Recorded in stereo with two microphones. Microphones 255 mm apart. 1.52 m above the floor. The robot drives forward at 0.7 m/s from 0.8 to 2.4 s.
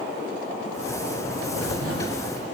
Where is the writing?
75° right (ahead or behind), 1.0 m; by 2.2 s 55° right (ahead or behind), 1.2 m.